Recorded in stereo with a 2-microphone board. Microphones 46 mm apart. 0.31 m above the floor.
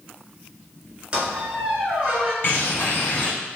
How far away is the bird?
About 1.1 m.